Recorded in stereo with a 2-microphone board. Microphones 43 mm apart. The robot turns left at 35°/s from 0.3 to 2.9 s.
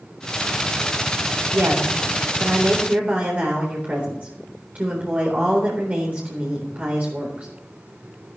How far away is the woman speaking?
About 4 m.